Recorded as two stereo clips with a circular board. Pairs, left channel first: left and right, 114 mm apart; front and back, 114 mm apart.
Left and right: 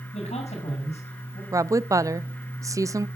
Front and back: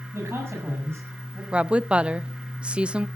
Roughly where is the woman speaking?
Right.